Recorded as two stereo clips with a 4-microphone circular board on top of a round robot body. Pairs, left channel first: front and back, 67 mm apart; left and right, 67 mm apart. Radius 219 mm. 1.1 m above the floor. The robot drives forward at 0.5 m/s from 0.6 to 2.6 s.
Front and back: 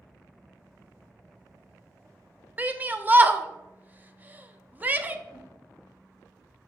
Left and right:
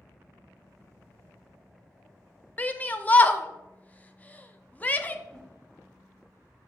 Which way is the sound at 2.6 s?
135° left.